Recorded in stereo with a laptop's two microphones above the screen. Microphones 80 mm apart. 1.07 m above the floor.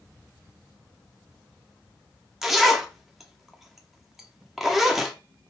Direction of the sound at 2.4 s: Centre (ahead or behind).